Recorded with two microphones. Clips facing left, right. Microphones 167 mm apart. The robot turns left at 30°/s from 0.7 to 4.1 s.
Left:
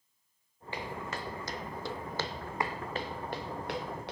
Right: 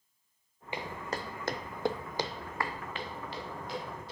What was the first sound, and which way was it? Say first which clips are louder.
Footsteps: right 1 dB; 15° right (ahead or behind).